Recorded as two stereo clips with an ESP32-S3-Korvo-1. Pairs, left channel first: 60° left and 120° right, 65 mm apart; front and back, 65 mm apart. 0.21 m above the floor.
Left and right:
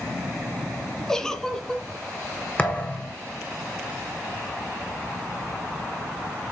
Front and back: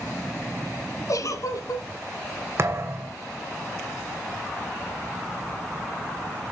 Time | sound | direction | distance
1.1 | a giggle | 20° right | 1.3 m
2.6 | a thud | 130° left | 1.8 m